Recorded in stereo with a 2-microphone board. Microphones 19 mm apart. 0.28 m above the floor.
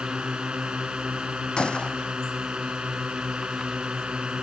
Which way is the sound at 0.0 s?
65° right (ahead or behind).